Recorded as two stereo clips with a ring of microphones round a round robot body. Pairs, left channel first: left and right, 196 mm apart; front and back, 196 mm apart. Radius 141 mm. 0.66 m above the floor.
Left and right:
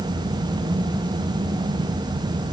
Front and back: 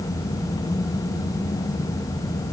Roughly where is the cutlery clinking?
No cutlery clinking in this recording.